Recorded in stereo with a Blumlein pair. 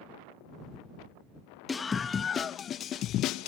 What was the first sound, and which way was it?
A scream, 15° left.